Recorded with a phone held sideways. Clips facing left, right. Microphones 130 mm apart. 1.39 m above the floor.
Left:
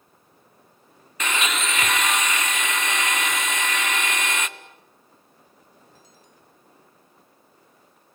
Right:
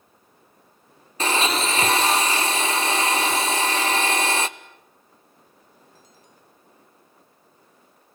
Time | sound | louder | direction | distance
1.2 | a blender | right 4 dB | 35° right (ahead or behind) | 0.9 m